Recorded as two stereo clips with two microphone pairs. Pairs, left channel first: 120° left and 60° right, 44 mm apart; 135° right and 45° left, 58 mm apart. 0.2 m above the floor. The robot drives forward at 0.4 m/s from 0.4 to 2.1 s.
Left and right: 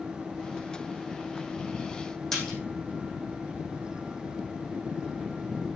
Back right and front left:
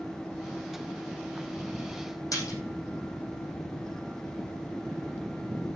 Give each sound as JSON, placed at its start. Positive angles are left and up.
{"t": 2.3, "sound": "a splash", "azimuth_deg": -160, "distance_m": 5.5}